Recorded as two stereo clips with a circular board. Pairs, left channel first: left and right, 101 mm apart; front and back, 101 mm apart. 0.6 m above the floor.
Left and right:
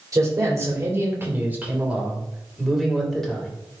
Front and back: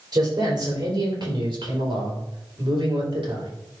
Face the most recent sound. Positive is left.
turn(degrees=170)